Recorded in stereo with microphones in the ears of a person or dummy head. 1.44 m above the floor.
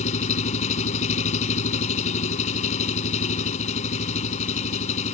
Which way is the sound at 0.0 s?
35° left (ahead or behind).